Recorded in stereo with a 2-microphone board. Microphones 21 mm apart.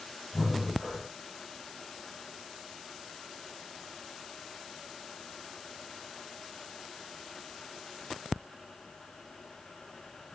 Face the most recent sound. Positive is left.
turn(degrees=-25)  # may be behind; listen again after turning